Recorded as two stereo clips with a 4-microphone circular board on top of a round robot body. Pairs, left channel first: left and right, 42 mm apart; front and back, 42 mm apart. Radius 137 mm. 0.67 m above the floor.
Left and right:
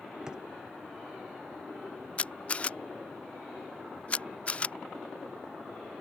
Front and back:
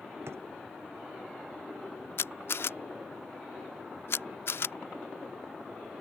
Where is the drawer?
165° right.